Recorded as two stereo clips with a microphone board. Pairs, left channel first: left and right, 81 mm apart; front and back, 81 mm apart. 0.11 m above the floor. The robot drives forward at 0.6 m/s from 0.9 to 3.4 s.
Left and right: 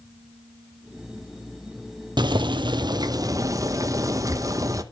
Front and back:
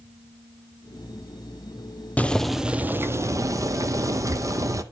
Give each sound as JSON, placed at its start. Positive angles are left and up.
{"t": 2.2, "sound": "boiling", "azimuth_deg": -70, "distance_m": 0.6}